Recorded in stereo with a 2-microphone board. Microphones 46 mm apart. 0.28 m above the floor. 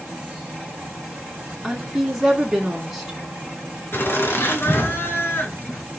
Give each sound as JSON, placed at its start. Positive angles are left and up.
{"t": 1.6, "sound": "a woman speaking", "side_deg": -10, "distance_m": 3.5}
{"t": 3.9, "sound": "laughter", "side_deg": 55, "distance_m": 3.0}